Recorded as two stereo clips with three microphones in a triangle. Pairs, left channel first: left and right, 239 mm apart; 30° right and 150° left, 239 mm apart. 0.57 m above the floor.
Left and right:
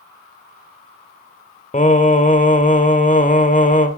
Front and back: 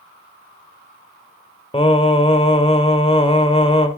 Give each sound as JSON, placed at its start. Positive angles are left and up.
{"t": 1.7, "sound": "singing", "azimuth_deg": 35, "distance_m": 1.3}